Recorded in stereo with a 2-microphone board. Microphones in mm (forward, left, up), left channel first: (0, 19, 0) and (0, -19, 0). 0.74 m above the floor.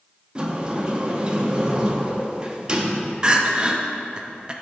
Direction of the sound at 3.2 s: 25° right (ahead or behind).